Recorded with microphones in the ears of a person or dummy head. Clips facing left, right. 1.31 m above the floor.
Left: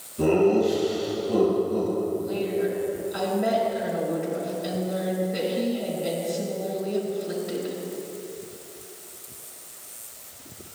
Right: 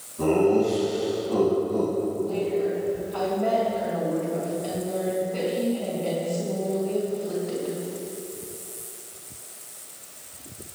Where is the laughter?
30° left (ahead or behind), 5 m; by 1.9 s 10° left (ahead or behind), 4 m.